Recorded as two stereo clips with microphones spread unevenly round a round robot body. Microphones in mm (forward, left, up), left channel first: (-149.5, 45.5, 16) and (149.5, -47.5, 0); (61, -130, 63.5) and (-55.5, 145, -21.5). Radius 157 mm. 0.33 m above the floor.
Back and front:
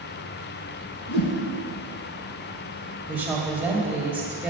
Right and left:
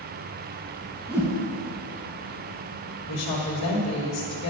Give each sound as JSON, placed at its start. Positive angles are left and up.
{"t": 1.1, "sound": "a whoosh", "azimuth_deg": -150, "distance_m": 1.5}
{"t": 3.1, "sound": "a woman speaking", "azimuth_deg": -100, "distance_m": 1.8}